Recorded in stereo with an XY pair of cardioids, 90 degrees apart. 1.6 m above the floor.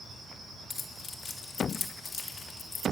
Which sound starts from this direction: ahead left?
Keys jangling, at 0.7 s.